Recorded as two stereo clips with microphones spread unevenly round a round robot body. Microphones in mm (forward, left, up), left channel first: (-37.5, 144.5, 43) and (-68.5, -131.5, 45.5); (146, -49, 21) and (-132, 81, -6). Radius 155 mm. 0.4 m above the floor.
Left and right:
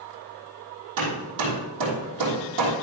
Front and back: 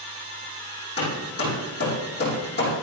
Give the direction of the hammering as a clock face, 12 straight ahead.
3 o'clock.